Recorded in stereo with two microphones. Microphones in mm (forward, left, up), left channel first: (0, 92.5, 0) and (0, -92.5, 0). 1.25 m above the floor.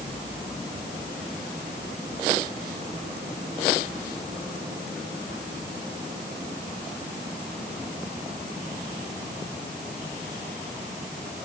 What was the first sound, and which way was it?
Only background noise.